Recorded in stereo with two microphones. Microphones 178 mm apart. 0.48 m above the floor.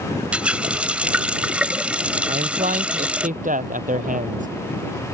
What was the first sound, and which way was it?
A running tap, 5° right (ahead or behind).